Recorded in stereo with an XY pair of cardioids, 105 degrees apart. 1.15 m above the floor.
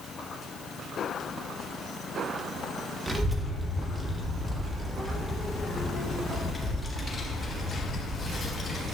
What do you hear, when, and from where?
3.1 s a child speaking: 25° right, 1.6 m; by 8.8 s 35° left, 4 m